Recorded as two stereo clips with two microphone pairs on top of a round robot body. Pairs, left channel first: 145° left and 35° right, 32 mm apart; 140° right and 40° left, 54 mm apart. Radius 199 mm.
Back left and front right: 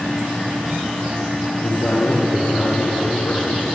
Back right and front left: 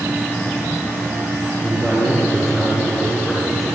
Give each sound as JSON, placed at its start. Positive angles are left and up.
{"t": 1.6, "sound": "a man speaking", "azimuth_deg": 125, "distance_m": 9.5}